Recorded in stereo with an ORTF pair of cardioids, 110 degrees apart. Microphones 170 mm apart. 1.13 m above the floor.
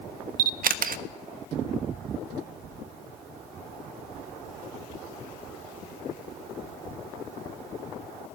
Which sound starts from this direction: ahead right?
A camera shutter, at 0.4 s.